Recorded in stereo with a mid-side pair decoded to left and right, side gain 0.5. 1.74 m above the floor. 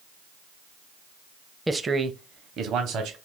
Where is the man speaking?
10° right, 0.5 m; by 3.2 s 70° right, 0.9 m.